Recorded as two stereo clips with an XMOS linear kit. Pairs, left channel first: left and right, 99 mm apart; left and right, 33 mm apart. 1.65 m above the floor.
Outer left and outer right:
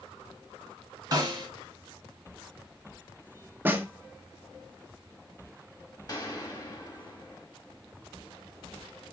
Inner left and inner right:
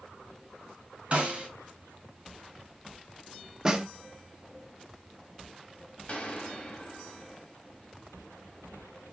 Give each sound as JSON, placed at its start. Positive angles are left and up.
{"t": 1.1, "sound": "a snare drum", "side_deg": -40, "distance_m": 3.0}
{"t": 3.6, "sound": "a snare drum", "side_deg": -20, "distance_m": 0.7}
{"t": 6.1, "sound": "a gunshot", "side_deg": 40, "distance_m": 1.5}